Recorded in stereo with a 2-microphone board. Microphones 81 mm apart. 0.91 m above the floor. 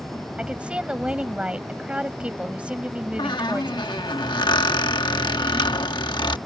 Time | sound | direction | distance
0.4 | a woman speaking | 15° right (ahead or behind) | ?
3.2 | a squeak | 70° left (ahead or behind) | ?